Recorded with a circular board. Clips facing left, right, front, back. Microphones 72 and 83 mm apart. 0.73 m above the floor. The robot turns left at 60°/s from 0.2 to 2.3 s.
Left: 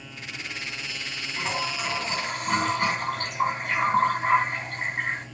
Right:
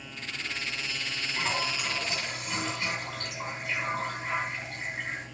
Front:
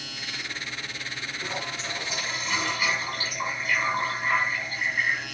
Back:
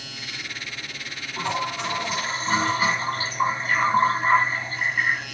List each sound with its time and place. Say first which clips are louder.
1.4 s a toilet flushing: left 2 dB, back 10 dB; 175° right, 3.5 m; by 5.3 s 125° left, 3.5 m